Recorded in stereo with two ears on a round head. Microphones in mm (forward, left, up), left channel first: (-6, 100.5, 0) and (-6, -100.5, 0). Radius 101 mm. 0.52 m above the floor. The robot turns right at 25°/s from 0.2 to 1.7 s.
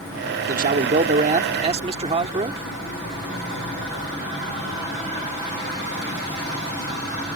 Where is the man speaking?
75° right; by 2.7 s 45° right.